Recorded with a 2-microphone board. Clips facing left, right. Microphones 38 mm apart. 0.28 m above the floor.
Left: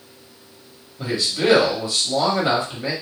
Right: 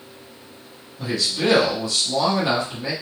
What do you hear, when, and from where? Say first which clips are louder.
1.0 s a man speaking: left 1 dB; 20° left (ahead or behind), 1.0 m